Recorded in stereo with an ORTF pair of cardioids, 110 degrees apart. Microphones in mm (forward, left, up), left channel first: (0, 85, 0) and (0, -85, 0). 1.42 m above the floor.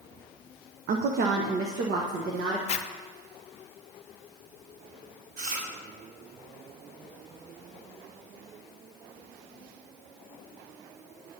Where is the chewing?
60° right, 3 m.